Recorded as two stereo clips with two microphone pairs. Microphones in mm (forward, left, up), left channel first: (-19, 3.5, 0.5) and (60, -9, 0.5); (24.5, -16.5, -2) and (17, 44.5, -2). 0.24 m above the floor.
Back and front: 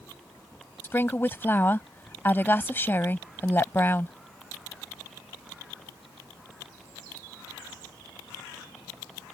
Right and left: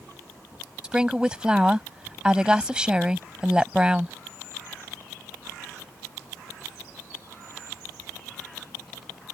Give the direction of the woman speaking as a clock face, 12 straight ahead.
7 o'clock.